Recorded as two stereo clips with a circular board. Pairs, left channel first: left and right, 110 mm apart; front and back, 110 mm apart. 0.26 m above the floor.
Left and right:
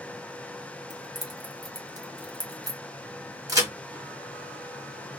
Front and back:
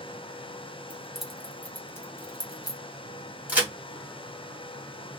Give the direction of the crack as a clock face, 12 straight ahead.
4 o'clock.